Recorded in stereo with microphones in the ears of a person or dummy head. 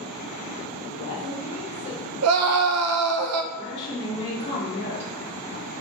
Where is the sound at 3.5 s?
35° left (ahead or behind), 1.9 m.